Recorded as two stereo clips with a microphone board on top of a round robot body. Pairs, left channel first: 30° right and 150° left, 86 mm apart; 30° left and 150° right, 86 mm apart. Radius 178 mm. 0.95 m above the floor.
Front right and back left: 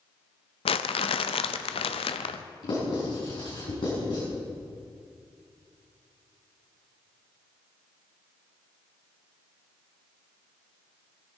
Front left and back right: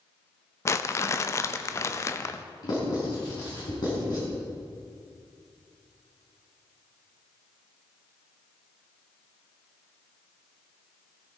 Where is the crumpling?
30° right, 0.6 m.